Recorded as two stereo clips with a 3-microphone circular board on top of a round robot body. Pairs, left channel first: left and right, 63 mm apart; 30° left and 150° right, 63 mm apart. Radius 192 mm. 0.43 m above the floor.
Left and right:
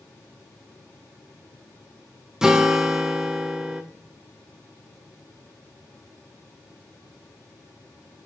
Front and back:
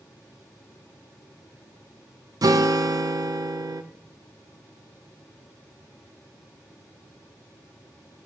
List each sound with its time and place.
2.4 s a guitar: 170° right, 0.6 m